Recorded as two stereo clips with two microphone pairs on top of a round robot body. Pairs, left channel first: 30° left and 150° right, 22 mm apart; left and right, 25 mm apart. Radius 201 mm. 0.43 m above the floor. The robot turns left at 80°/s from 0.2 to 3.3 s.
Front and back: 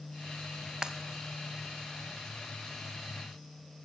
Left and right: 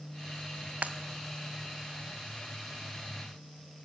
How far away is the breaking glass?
About 0.8 m.